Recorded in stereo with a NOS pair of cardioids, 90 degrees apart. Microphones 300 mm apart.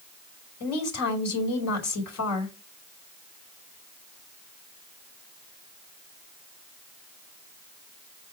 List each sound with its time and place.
0.6 s a woman speaking: 70° left, 5 m